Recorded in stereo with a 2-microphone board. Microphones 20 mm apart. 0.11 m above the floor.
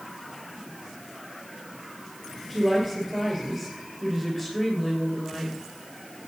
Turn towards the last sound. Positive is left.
turn(degrees=-10)  # may be behind; listen again after turning